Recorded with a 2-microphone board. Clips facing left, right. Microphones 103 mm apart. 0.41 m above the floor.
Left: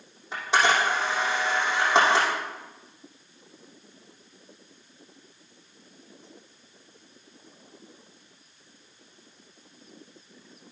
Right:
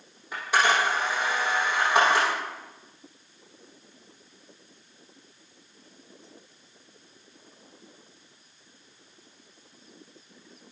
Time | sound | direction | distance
0.3 | a camera shutter | 25° left (ahead or behind) | 7 m